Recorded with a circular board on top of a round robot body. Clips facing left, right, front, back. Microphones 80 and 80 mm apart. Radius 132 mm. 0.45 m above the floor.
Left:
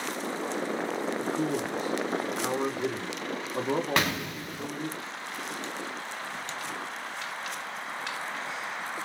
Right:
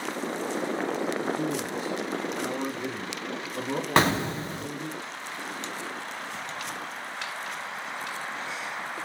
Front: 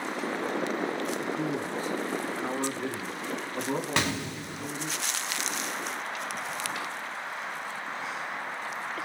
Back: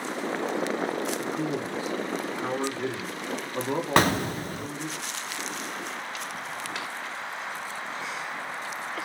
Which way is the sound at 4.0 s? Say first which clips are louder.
Right 6 dB, back 7 dB; 145° right.